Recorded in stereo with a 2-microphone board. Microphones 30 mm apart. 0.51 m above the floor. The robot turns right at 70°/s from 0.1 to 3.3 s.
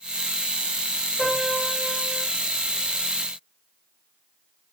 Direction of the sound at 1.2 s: 75° right.